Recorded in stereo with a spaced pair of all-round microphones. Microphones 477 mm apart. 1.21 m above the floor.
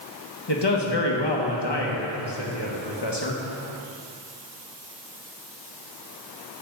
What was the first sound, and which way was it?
A man speaking, 60° left (ahead or behind).